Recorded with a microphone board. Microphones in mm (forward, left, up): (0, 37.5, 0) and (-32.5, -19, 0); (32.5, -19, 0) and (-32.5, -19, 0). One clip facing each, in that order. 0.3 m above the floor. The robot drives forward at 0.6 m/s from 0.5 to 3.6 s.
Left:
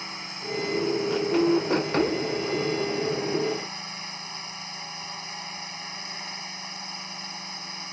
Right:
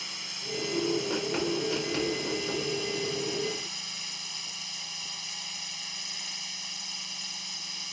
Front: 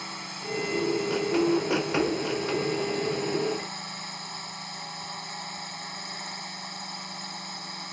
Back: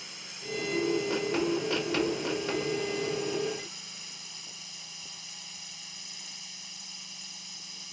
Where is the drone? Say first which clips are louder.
Left 5 dB, front 8 dB; 10° left.